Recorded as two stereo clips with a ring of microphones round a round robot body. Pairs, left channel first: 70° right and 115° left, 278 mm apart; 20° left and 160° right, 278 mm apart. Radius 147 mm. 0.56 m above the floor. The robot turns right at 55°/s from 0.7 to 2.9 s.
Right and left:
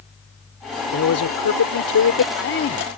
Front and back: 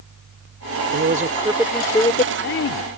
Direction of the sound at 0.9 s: 110° right.